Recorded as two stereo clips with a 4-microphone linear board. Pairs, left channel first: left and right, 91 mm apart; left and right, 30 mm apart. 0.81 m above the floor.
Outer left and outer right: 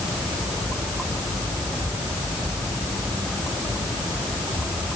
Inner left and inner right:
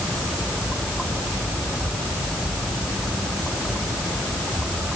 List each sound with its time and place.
Only background noise.